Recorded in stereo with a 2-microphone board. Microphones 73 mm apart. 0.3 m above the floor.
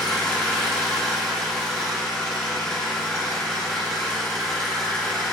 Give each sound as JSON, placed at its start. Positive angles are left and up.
{"t": 0.0, "sound": "an engine running", "side_deg": 15, "distance_m": 0.9}